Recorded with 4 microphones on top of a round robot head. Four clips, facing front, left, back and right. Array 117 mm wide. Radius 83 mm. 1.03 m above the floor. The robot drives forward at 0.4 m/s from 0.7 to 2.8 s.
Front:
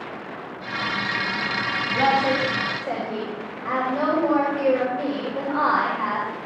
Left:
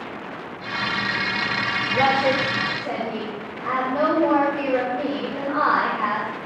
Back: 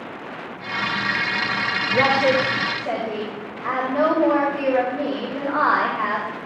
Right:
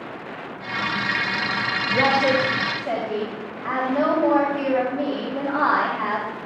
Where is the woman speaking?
165° left, 5 m.